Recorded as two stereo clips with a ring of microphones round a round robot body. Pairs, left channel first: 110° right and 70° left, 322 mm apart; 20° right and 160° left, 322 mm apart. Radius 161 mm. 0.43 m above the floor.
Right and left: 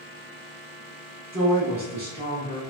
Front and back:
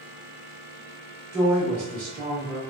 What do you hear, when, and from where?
1.3 s a woman speaking: 110° left, 1.1 m